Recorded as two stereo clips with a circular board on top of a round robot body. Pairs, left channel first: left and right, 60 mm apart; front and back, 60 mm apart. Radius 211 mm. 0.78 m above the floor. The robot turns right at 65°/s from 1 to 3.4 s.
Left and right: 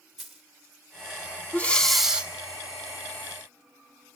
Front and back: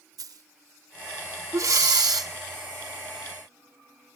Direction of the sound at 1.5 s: 150° left.